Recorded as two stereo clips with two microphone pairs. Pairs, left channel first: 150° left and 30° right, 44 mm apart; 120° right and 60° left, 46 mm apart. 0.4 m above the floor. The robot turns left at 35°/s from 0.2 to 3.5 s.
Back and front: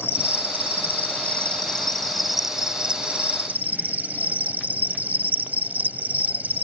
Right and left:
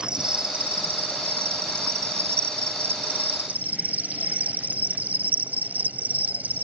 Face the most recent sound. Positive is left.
turn(degrees=15)